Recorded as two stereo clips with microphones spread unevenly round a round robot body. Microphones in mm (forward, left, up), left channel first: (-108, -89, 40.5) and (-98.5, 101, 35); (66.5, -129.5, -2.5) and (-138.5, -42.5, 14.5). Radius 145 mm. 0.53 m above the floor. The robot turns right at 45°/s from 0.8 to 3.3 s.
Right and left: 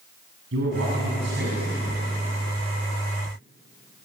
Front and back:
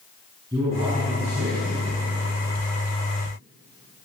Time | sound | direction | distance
0.5 | a man speaking | 80° left | 5.5 m